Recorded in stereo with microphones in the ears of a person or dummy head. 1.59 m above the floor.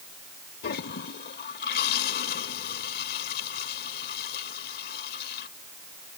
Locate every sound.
0.6 s a toilet flushing: 55° left (ahead or behind)